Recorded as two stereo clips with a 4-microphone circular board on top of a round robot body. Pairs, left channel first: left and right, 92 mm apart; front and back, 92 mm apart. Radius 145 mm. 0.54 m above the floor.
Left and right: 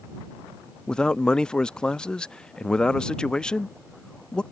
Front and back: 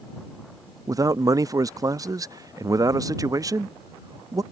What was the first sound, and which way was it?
A man speaking, 165° left.